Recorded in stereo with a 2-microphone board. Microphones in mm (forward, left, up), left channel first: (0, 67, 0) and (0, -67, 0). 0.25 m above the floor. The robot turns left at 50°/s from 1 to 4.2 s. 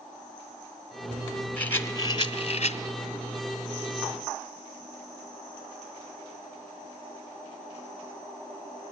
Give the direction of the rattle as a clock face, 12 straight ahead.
6 o'clock.